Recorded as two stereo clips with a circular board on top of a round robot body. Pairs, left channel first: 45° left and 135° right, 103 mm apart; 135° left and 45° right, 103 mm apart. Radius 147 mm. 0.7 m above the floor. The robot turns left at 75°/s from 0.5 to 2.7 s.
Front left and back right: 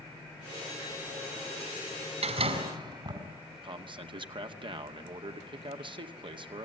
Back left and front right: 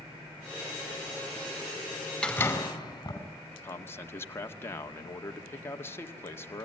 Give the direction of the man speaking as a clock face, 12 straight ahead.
5 o'clock.